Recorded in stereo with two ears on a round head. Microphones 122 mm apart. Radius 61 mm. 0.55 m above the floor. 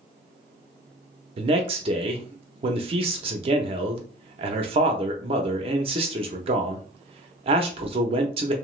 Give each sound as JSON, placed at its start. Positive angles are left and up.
{"t": 1.4, "sound": "a man speaking", "side_deg": -40, "distance_m": 0.7}